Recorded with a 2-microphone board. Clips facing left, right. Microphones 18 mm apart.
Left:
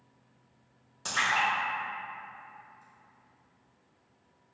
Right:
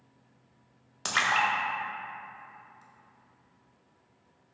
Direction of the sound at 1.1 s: 40° right (ahead or behind).